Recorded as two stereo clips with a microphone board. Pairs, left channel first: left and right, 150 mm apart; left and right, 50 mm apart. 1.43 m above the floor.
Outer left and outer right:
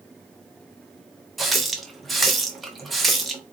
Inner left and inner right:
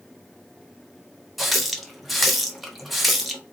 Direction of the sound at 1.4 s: Centre (ahead or behind).